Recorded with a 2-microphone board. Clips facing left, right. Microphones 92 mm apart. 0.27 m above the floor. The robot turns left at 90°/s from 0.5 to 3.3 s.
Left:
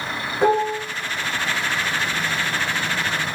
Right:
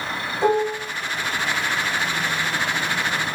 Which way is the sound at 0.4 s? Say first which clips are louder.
Left 1 dB; 60° left (ahead or behind).